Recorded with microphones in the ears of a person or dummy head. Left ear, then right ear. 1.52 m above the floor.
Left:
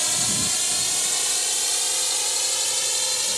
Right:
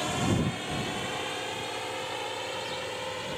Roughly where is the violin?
I don't hear a violin.